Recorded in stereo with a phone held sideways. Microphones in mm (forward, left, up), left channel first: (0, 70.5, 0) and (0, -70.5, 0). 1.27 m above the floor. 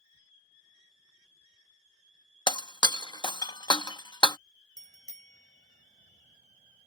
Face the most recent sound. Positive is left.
turn(degrees=-65)  # may be behind; listen again after turning